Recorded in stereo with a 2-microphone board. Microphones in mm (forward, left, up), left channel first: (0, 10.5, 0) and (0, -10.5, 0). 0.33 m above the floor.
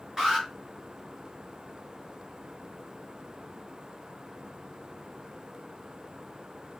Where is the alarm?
30° right (ahead or behind), 4 m.